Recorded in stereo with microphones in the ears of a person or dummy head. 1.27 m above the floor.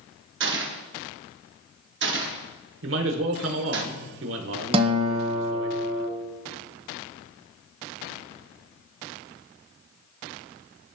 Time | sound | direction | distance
0.4 | a gunshot | 55° right (ahead or behind) | 1.0 m
2.8 | a man speaking | 70° right (ahead or behind) | 1.2 m
4.7 | a guitar | 25° right (ahead or behind) | 0.8 m